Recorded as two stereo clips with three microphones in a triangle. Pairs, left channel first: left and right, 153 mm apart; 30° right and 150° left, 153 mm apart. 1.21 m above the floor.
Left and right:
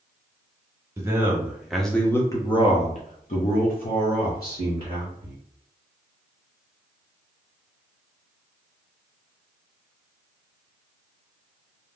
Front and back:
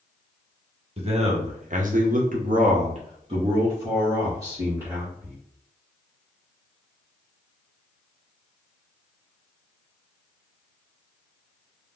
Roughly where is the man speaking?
Behind.